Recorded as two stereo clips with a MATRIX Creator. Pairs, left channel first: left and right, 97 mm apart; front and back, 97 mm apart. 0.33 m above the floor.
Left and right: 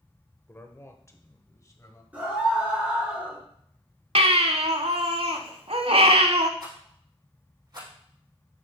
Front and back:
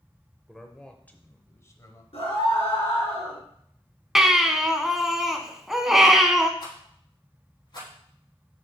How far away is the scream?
About 4 m.